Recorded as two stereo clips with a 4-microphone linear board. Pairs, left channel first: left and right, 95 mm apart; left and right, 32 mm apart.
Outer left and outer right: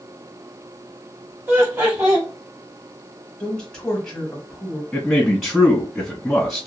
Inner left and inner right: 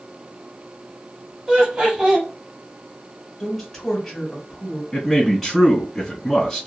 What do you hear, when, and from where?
1.5 s laughter: 25° right (ahead or behind), 1.0 m
3.4 s a woman speaking: 5° left (ahead or behind), 1.2 m
4.9 s a man speaking: 5° left (ahead or behind), 1.9 m